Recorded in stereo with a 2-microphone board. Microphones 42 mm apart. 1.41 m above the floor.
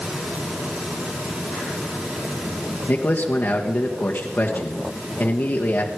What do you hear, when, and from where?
2.9 s a man speaking: 50° left (ahead or behind), 1.3 m